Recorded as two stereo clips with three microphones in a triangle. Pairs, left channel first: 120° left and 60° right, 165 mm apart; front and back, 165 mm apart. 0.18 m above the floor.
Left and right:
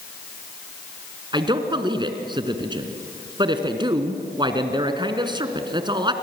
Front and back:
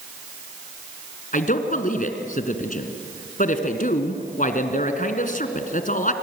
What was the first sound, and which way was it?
A man speaking, 5° right.